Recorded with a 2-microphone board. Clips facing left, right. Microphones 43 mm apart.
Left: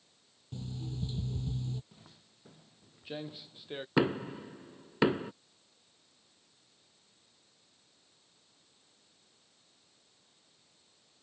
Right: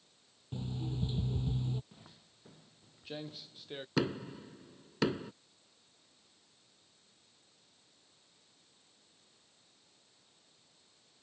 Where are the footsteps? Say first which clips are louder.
Right 1 dB; 10° right (ahead or behind); by 3.9 s 15° left (ahead or behind).